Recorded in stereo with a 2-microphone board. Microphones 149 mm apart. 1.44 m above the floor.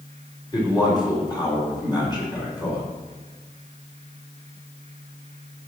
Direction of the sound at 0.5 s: 30° left (ahead or behind).